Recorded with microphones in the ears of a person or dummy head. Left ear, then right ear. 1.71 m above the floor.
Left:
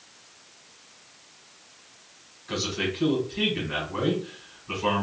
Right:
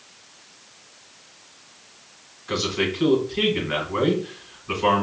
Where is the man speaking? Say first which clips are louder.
Right 4 dB; 15° right (ahead or behind), 1.3 m.